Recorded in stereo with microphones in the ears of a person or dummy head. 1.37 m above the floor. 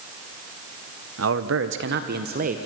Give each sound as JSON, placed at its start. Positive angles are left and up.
{"t": 1.2, "sound": "a man speaking", "side_deg": -70, "distance_m": 1.0}